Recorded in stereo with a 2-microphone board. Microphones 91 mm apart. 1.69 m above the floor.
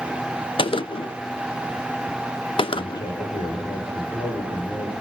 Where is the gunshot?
75° left (ahead or behind), 0.6 m.